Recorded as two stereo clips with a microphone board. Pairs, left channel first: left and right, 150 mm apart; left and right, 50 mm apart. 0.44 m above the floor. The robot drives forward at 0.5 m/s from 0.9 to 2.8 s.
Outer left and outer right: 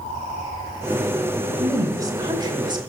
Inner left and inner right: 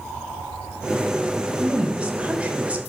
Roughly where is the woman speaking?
Right.